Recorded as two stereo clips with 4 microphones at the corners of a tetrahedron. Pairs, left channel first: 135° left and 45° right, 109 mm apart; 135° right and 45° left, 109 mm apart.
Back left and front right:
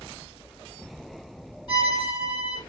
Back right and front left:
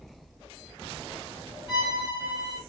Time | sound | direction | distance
1.7 | a violin | 175° left | 4.5 m